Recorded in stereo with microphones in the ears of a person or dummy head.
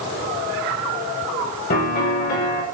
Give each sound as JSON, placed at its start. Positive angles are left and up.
{"t": 1.7, "sound": "a piano", "side_deg": 45, "distance_m": 8.0}